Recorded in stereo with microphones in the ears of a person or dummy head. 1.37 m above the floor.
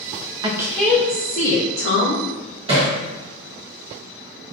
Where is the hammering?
35° right (ahead or behind), 1.4 m.